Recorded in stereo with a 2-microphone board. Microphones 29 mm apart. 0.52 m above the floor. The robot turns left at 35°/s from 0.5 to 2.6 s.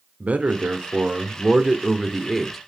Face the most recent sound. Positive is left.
turn(degrees=175)